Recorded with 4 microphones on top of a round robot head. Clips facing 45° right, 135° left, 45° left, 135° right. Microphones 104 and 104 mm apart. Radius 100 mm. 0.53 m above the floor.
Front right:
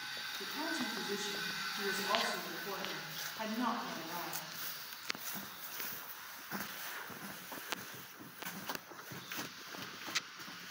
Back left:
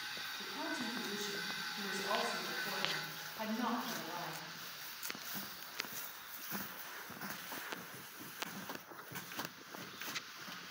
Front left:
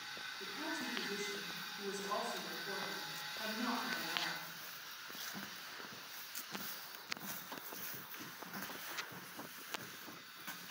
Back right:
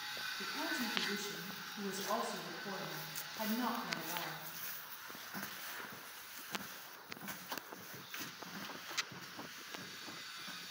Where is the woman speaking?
160° right, 3.5 m.